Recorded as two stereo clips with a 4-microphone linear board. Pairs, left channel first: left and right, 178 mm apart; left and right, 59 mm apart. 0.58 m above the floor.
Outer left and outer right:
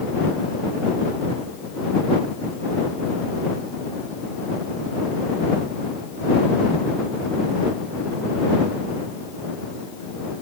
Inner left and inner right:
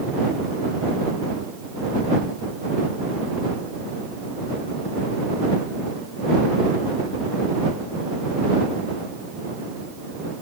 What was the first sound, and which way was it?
Only background noise.